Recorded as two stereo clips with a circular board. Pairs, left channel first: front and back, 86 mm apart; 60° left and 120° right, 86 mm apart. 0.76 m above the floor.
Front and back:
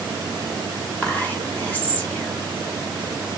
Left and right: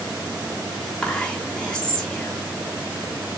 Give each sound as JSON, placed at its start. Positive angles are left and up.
{"t": 1.0, "sound": "whispering", "azimuth_deg": -5, "distance_m": 1.0}